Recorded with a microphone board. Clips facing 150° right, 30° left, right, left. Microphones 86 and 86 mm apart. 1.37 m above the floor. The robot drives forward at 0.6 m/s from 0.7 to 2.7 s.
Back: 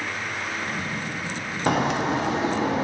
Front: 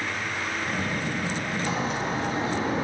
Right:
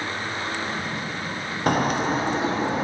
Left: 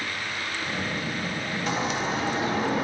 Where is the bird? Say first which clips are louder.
Back 9 dB, right 7 dB; 125° right, 0.6 m; by 2.9 s 155° right, 1.1 m.